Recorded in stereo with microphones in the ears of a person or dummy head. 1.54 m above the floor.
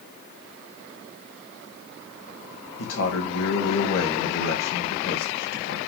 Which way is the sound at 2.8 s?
75° left (ahead or behind).